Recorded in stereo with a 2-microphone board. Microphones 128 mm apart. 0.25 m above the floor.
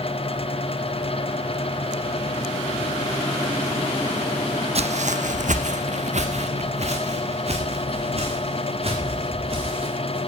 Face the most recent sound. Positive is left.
turn(degrees=-50)  # may be behind; listen again after turning